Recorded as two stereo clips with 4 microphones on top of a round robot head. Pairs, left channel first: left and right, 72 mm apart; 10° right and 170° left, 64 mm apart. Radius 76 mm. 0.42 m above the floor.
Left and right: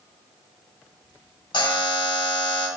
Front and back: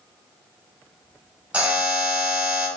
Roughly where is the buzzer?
Left.